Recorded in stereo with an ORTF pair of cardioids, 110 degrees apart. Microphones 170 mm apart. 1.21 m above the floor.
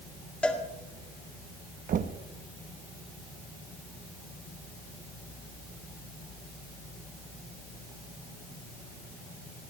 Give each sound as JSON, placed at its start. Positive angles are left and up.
{"t": 0.4, "sound": "a cowbell", "azimuth_deg": 5, "distance_m": 1.8}
{"t": 1.9, "sound": "knocking", "azimuth_deg": -55, "distance_m": 1.0}